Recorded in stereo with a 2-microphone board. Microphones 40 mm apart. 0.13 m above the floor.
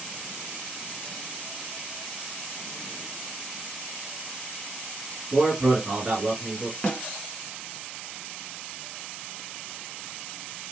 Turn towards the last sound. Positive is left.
turn(degrees=30)  # may be behind; listen again after turning